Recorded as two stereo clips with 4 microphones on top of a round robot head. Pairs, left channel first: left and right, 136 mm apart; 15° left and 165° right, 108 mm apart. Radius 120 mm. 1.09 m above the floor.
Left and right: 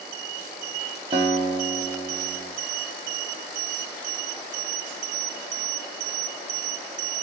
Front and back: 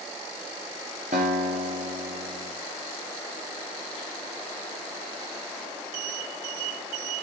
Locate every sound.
1.1 s a guitar: 145° right, 0.7 m